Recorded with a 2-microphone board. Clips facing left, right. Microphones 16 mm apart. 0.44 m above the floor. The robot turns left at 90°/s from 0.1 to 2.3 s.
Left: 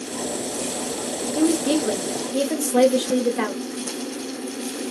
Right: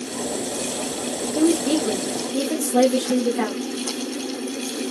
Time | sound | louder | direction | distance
1.4 | a woman speaking | right 1 dB | 10° right (ahead or behind) | 1.0 m